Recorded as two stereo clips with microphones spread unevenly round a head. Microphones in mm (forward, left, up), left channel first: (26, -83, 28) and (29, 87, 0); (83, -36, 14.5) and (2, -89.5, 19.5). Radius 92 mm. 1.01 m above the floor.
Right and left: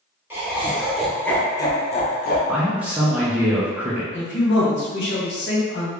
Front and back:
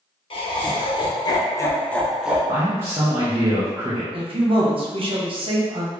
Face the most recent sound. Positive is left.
turn(degrees=-120)